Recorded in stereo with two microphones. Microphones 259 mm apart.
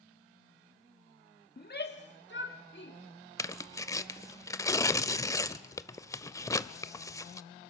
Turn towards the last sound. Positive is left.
turn(degrees=15)  # may be behind; listen again after turning